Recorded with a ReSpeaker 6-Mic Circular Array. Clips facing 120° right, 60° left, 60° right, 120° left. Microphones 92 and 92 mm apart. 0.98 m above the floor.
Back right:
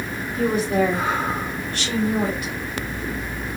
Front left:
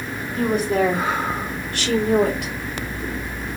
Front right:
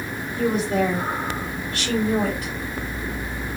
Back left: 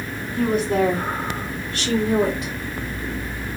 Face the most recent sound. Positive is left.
turn(degrees=60)